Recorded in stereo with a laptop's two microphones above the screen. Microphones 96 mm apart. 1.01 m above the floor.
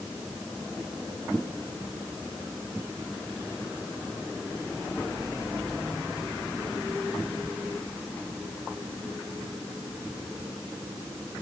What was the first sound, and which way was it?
Only background noise.